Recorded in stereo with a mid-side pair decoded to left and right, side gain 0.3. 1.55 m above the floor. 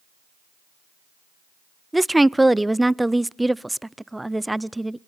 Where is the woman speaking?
15° right, 0.5 m.